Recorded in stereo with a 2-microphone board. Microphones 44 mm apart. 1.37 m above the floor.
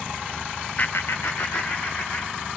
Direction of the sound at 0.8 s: 35° left (ahead or behind).